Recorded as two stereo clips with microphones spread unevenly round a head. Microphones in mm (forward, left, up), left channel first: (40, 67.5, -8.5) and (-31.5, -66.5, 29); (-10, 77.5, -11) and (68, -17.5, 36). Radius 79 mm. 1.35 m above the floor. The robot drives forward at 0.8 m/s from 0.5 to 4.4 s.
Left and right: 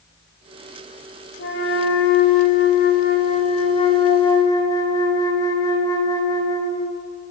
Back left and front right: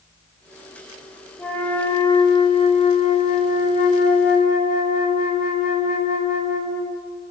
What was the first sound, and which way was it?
A flute, 50° left.